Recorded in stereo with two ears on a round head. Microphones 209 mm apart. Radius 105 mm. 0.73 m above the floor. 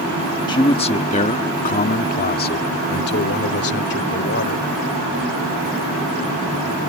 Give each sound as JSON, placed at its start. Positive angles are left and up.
{"t": 0.5, "sound": "a man speaking", "side_deg": 20}